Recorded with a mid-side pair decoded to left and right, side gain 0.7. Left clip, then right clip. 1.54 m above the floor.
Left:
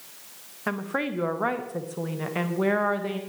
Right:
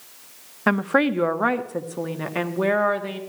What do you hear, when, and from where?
0.7 s a woman speaking: 40° right, 0.7 m; by 3.2 s 15° right, 1.9 m